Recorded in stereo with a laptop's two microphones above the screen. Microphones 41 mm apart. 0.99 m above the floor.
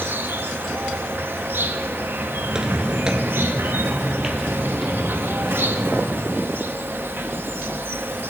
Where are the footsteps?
20° right (ahead or behind), 1.0 m; by 6.3 s centre (ahead or behind), 3 m.